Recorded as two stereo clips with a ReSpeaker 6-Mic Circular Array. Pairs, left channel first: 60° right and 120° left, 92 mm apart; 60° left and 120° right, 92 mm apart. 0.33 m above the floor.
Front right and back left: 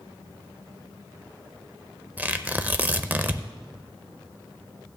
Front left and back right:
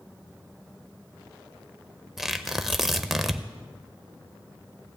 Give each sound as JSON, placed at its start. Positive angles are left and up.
{"t": 2.2, "sound": "tearing paper", "azimuth_deg": 155, "distance_m": 0.6}